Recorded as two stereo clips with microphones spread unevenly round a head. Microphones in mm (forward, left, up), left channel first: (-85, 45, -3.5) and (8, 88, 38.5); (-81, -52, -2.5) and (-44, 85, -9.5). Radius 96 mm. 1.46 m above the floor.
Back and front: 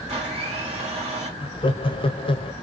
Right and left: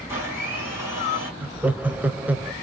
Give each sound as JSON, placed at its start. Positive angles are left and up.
{"t": 0.1, "sound": "a blender", "azimuth_deg": 0, "distance_m": 1.6}
{"t": 1.4, "sound": "laughter", "azimuth_deg": 155, "distance_m": 0.7}